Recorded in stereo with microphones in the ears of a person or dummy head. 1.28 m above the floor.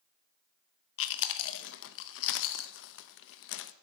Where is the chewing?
65° left (ahead or behind), 0.8 m.